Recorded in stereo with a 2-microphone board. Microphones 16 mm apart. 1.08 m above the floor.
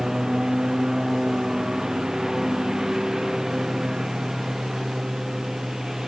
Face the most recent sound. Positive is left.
turn(degrees=-25)  # may be behind; listen again after turning